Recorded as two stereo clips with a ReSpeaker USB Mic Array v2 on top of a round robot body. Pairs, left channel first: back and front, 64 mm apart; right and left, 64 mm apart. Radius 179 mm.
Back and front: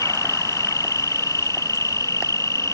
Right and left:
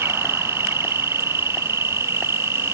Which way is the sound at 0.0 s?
140° left.